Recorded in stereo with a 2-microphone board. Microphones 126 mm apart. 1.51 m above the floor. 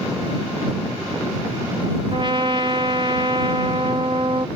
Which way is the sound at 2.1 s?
40° right (ahead or behind).